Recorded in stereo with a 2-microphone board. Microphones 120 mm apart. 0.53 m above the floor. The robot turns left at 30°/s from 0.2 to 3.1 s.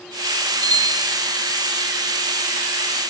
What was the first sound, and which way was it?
A bicycle bell, 60° left (ahead or behind).